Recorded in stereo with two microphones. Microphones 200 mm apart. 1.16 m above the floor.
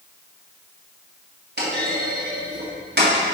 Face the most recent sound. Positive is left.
turn(degrees=-55)  # may be behind; listen again after turning